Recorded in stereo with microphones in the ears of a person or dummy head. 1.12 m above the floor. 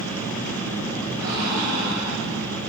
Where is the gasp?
25° right (ahead or behind), 3.5 m.